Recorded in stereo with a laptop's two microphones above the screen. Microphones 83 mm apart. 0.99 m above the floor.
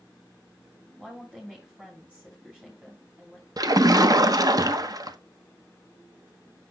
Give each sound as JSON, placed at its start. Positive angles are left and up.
{"t": 1.0, "sound": "a woman speaking", "side_deg": -15, "distance_m": 3.0}
{"t": 3.6, "sound": "a splash", "side_deg": -50, "distance_m": 0.7}